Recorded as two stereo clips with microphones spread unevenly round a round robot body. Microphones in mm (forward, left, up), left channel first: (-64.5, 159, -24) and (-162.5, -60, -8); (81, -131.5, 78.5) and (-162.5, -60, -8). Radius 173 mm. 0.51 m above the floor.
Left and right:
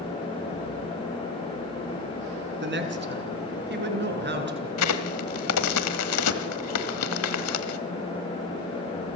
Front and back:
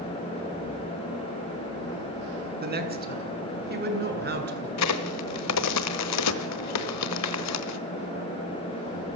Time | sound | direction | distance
2.6 | a woman speaking | 150° right | 5.5 m
4.8 | a crack | 25° left | 1.3 m